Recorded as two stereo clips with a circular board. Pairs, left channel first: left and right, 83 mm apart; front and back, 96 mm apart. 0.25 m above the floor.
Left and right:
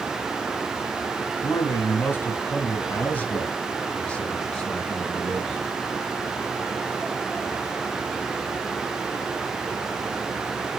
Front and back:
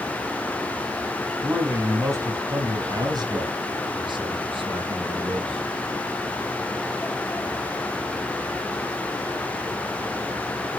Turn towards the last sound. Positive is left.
turn(degrees=170)